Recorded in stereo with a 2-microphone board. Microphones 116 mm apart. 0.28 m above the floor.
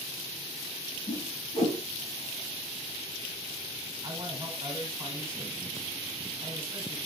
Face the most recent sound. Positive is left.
turn(degrees=-40)  # may be behind; listen again after turning